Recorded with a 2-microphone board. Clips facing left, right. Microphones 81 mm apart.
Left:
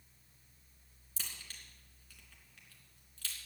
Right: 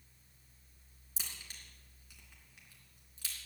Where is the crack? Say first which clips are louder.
Even; 15° right (ahead or behind), 3.5 m.